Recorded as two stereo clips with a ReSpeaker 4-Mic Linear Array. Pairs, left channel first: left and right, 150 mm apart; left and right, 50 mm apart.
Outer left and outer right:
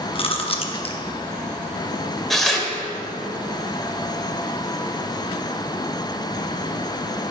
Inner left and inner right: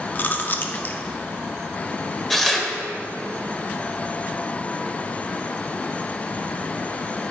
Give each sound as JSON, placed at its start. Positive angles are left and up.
{"t": 0.1, "sound": "chewing", "side_deg": 40, "distance_m": 0.7}
{"t": 2.3, "sound": "tearing paper", "side_deg": 0, "distance_m": 1.1}